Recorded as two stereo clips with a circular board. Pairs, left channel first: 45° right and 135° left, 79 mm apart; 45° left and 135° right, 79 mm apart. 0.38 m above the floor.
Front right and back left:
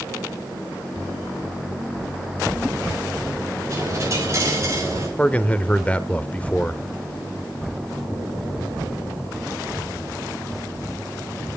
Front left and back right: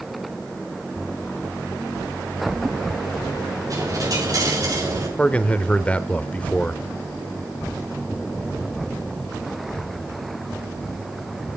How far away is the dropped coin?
About 7 m.